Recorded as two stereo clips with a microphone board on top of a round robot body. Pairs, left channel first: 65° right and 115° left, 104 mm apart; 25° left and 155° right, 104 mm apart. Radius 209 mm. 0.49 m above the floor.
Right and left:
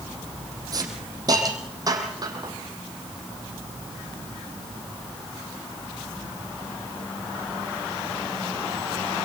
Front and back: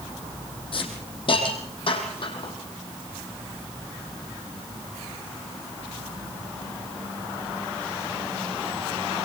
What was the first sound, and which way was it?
A hiss, 60° left.